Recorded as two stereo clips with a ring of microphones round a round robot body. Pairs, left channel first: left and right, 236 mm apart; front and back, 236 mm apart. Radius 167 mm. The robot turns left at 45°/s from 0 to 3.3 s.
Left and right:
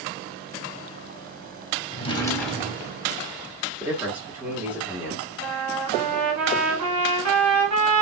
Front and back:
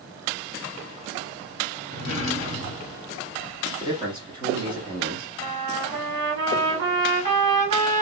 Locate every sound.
1.9 s a drawer: 30° left, 0.8 m; by 3.0 s 20° right, 0.8 m
3.8 s a man speaking: 155° right, 1.0 m
5.4 s a trumpet: 130° right, 1.8 m